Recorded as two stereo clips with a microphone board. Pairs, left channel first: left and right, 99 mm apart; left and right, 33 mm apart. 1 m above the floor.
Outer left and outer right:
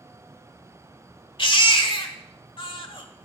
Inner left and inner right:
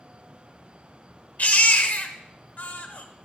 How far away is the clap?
I don't hear a clap.